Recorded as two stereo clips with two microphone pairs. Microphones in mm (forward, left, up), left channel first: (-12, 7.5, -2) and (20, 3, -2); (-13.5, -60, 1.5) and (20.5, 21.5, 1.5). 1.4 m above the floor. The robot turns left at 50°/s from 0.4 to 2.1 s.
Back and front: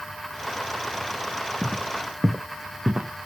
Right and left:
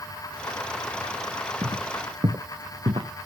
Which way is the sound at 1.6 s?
100° left.